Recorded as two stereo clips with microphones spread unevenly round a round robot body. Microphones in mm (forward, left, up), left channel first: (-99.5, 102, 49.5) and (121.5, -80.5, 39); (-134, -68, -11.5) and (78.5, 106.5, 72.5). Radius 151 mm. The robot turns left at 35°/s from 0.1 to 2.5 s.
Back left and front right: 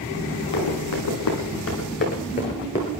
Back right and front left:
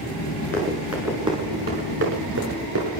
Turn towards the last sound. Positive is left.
turn(degrees=70)